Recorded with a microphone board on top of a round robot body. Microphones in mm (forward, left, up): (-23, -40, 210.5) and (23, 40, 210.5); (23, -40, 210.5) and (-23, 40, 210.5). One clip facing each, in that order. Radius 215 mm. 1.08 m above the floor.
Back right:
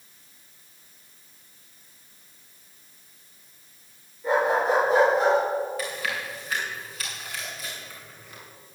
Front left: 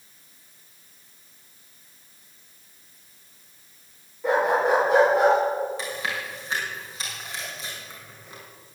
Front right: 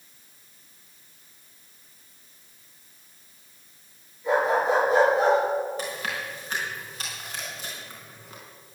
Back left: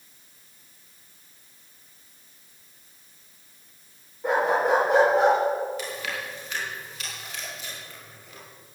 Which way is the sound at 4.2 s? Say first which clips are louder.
Front left 1 dB, even; 85° left.